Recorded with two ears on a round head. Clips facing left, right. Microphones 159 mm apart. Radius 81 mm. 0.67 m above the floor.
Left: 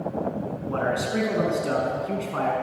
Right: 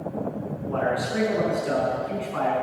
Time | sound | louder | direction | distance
0.7 | a man speaking | right 1 dB | 45° left (ahead or behind) | 6.5 m